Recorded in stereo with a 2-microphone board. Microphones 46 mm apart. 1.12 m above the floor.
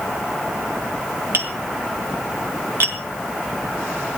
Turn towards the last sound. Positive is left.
turn(degrees=-65)  # may be behind; listen again after turning